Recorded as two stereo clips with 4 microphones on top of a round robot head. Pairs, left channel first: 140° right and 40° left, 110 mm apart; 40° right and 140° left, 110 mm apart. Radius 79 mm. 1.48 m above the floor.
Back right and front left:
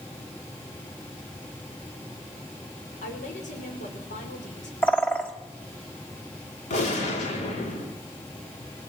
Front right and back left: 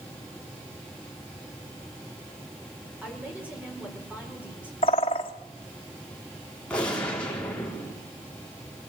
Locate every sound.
3.0 s a woman speaking: 145° right, 6 m
4.8 s a bird: 65° right, 1.2 m
6.7 s a gunshot: 120° right, 5 m